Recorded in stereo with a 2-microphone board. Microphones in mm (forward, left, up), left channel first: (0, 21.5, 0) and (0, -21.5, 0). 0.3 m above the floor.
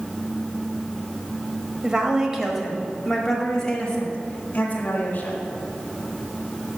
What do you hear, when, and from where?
1.8 s a woman speaking: 25° right (ahead or behind), 1.3 m; by 5.4 s 40° left (ahead or behind), 2 m